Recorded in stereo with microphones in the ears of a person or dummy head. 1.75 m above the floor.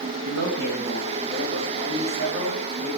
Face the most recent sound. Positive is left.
turn(degrees=-55)  # may be behind; listen again after turning